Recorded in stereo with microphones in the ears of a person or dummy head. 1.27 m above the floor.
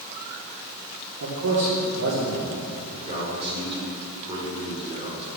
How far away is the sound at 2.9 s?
About 3.5 m.